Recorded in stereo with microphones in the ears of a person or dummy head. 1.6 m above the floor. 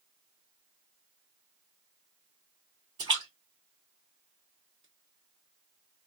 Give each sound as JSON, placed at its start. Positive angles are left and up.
{"t": 3.0, "sound": "a splash", "side_deg": -20, "distance_m": 1.4}